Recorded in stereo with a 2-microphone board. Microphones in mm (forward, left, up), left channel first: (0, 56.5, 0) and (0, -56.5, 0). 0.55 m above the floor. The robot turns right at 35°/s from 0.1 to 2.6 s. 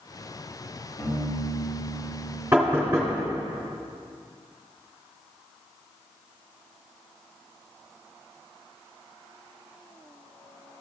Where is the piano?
45° left, 3.5 m; by 2.4 s 90° left, 3.5 m.